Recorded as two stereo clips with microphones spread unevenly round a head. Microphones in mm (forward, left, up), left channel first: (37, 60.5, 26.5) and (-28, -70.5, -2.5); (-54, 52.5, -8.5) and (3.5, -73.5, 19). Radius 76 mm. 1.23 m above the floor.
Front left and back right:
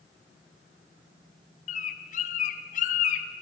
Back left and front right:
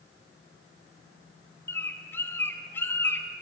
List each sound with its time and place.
1.7 s a bird: 35° left, 1.7 m